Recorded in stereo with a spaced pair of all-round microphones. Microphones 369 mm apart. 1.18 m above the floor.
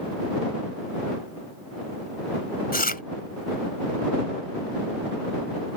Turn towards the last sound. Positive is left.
turn(degrees=25)  # may be behind; listen again after turning